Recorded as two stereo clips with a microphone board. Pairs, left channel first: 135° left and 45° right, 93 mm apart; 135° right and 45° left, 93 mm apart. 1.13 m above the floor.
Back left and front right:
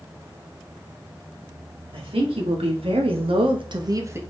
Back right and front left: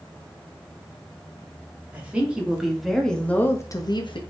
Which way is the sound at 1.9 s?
30° right.